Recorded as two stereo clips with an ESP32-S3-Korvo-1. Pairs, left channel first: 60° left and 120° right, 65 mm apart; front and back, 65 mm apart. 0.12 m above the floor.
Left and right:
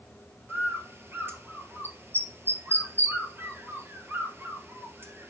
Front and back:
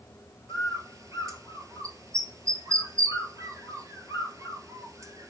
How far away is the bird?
About 1.2 m.